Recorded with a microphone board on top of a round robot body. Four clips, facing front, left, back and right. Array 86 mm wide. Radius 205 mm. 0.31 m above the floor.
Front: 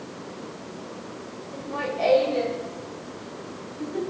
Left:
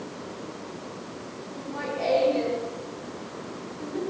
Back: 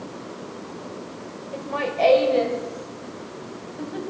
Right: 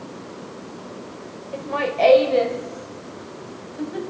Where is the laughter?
115° right, 2 m; by 4.1 s 120° right, 3.5 m.